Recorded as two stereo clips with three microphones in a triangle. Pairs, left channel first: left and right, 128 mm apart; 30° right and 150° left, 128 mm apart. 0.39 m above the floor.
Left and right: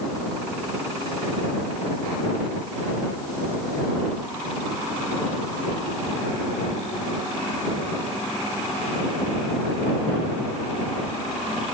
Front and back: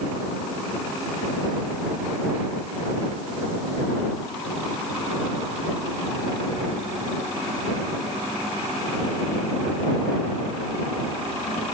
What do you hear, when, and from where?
Only background noise.